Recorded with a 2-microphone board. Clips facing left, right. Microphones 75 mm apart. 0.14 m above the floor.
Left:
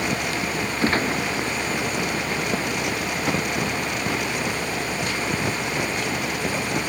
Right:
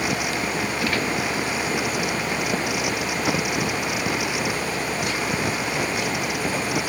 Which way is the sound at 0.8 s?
35° left (ahead or behind).